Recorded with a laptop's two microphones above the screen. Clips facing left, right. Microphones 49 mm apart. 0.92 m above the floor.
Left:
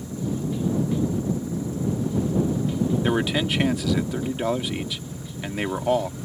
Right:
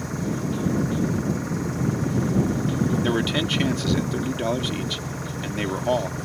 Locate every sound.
0.0 s an engine running: 65° right (ahead or behind)
3.0 s a man speaking: 5° left (ahead or behind)